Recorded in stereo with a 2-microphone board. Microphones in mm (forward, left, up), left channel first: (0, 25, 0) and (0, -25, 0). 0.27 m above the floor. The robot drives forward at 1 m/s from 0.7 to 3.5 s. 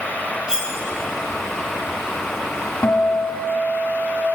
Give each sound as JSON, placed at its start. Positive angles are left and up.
{"t": 0.5, "sound": "cutlery clinking", "side_deg": -15, "distance_m": 2.0}
{"t": 2.8, "sound": "a guitar", "side_deg": 50, "distance_m": 1.1}